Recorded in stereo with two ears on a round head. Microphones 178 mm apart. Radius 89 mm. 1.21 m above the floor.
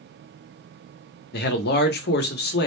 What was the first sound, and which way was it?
A man speaking, 55° left (ahead or behind).